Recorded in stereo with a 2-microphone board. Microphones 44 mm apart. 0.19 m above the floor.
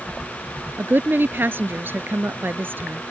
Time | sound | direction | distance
0.8 | a woman speaking | 55° right (ahead or behind) | ?